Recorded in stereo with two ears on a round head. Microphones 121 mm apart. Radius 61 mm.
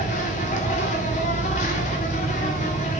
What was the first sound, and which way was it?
An insect, 55° left (ahead or behind).